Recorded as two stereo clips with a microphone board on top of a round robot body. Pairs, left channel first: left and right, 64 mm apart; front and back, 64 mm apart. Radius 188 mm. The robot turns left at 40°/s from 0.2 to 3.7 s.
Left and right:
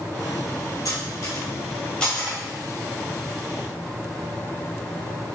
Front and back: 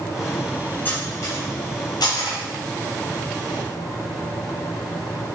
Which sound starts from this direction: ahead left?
Cutlery clinking, at 0.8 s.